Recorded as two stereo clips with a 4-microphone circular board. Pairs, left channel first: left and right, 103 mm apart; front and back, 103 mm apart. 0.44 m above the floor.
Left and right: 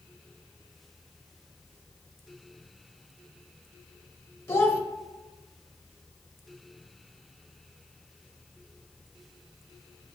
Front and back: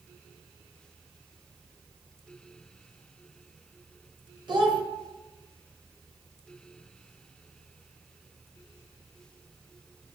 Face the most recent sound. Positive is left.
turn(degrees=145)